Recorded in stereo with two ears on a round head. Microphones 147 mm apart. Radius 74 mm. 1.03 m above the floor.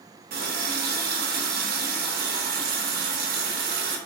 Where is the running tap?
60° right (ahead or behind), 0.6 m.